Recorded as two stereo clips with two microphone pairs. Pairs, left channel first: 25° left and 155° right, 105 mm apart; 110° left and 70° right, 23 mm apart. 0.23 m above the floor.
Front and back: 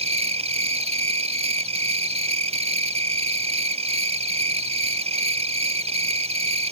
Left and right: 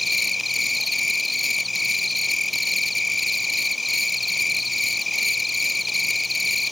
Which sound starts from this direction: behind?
An insect, at 0.0 s.